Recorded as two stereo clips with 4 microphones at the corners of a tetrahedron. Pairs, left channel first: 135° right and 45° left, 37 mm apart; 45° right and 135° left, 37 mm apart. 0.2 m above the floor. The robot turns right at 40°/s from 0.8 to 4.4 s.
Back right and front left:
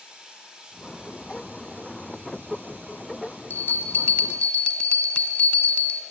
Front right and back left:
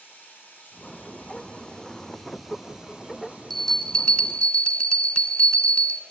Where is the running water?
20° right, 7.5 m; by 6.1 s 125° left, 7.5 m.